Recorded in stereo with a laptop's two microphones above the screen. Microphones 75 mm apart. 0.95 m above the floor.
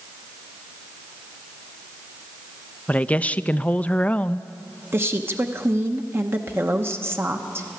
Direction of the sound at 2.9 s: 20° left (ahead or behind).